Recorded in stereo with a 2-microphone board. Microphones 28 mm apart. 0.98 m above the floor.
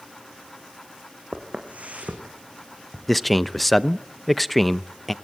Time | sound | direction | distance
1.3 | footsteps | 65° right (ahead or behind) | 3.5 m
3.1 | a man speaking | 5° left (ahead or behind) | 0.7 m